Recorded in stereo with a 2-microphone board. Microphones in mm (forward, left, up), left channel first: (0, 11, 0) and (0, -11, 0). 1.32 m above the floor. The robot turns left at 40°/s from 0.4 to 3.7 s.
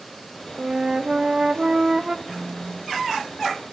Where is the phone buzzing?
Straight ahead, 6.5 m; by 3.7 s 60° right, 6.5 m.